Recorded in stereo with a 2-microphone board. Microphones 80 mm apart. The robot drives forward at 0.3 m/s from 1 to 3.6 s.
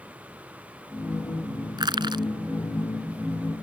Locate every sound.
1.8 s crushing: 75° right (ahead or behind)